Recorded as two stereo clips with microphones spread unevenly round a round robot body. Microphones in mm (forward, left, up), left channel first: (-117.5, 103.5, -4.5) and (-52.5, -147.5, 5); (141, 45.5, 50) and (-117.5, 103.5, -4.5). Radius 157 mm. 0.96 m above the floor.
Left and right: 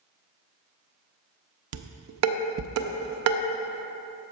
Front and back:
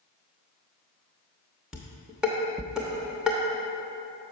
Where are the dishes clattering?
100° right, 0.5 m.